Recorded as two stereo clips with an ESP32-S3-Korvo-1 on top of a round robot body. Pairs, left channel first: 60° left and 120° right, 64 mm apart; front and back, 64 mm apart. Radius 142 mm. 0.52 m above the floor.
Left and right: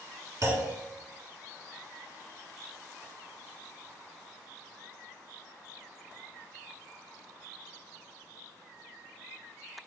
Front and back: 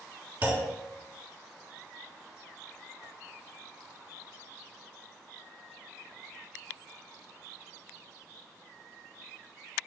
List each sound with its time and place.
0.4 s a clunk: 130° right, 1.6 m